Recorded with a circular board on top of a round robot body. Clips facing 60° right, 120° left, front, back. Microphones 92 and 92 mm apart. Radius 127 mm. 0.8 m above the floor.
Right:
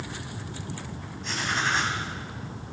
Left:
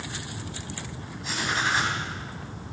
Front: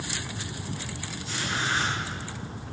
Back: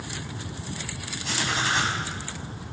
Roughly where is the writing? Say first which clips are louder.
Left 1 dB, back 3 dB; behind right.